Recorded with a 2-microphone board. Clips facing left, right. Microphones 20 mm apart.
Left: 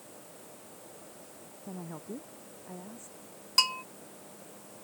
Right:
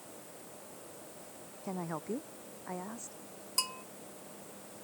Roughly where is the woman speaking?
Right.